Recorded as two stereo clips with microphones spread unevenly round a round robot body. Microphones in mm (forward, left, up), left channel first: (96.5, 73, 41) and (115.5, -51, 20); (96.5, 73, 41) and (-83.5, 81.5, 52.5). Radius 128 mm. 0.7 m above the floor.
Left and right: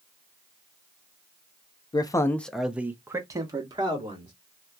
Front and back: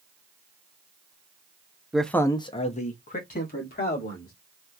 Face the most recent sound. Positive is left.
turn(degrees=-35)